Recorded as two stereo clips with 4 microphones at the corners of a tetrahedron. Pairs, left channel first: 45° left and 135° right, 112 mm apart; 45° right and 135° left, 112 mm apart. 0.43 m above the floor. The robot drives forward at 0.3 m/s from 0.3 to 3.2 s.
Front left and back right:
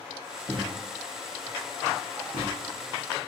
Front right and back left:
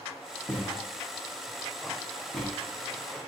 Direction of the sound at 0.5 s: 110° right.